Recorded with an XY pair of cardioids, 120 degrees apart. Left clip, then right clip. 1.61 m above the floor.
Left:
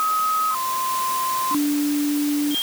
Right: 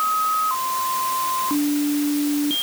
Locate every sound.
Only background noise.